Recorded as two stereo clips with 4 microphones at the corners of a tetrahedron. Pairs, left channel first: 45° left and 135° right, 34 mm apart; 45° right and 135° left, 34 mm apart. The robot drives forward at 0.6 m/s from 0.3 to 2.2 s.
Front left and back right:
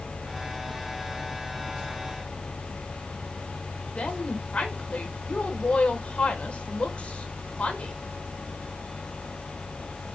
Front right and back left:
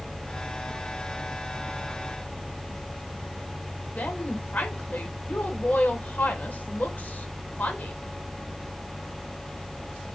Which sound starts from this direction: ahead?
A woman speaking, at 4.0 s.